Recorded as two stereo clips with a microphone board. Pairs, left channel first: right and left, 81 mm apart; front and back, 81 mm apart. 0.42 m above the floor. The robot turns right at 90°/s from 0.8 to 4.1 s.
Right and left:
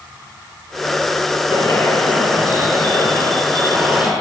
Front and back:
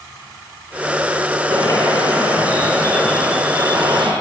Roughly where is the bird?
Ahead right.